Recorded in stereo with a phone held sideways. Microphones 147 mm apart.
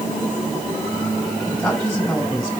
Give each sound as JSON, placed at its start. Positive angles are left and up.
{"t": 1.5, "sound": "a man speaking", "side_deg": 5, "distance_m": 6.0}